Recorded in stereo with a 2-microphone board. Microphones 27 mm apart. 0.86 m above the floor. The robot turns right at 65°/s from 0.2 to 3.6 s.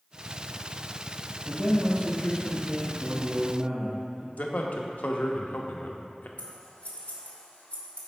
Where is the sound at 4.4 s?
70° left (ahead or behind), 0.7 m.